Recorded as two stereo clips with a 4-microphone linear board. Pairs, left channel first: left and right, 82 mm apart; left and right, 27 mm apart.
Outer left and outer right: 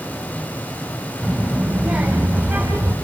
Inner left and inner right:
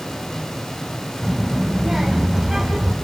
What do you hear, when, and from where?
1.2 s a child speaking: 10° right (ahead or behind), 4 m; by 3.0 s 20° right (ahead or behind), 5 m